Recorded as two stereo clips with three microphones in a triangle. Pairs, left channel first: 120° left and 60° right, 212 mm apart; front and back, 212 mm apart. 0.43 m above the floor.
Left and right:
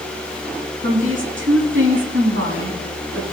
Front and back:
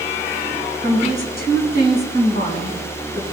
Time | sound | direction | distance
0.8 | a woman speaking | 40° right | 4 m